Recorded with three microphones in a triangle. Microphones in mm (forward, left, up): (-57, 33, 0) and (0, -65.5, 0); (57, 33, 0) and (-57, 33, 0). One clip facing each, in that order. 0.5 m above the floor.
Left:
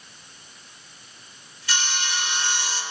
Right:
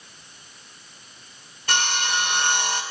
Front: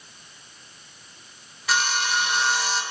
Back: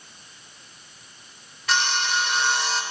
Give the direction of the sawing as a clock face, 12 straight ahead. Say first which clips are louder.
Right 4 dB, even; 3 o'clock.